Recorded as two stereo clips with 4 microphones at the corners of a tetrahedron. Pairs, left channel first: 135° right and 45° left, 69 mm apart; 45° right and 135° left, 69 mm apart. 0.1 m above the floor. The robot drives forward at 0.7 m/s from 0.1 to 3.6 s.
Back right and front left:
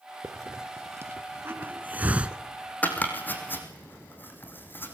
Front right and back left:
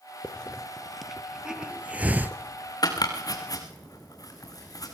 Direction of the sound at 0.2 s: 30° left.